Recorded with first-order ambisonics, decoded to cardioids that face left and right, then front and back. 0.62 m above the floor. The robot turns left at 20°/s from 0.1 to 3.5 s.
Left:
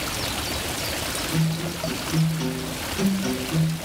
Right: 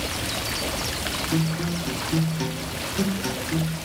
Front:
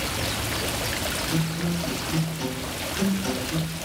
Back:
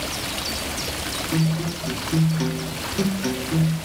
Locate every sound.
1.3 s a guitar: 115° right, 0.8 m; by 3.8 s 160° right, 0.8 m